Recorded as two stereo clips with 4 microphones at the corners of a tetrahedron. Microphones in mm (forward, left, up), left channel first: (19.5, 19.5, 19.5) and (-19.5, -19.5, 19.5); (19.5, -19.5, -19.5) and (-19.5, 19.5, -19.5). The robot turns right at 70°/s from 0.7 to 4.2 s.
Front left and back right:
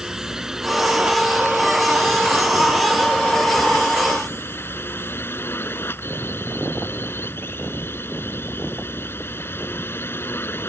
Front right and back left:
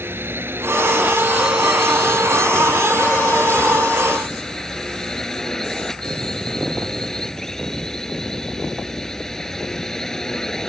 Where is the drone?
150° left; by 10.7 s 35° left.